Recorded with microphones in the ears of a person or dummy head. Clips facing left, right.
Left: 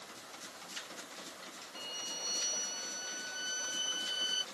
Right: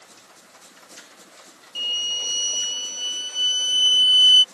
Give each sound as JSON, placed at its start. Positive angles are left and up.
{"t": 1.8, "sound": "a violin", "side_deg": -50}